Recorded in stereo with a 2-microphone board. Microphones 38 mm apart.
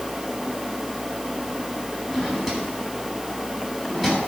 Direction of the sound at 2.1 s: 10° right (ahead or behind).